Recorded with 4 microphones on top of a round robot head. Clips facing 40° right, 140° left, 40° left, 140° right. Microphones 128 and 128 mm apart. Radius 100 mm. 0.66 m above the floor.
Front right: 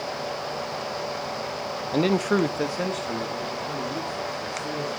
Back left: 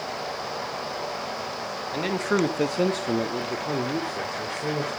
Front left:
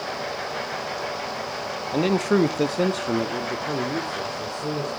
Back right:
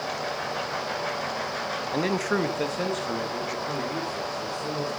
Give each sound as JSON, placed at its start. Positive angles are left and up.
{"t": 1.9, "sound": "a man speaking", "azimuth_deg": -30, "distance_m": 0.9}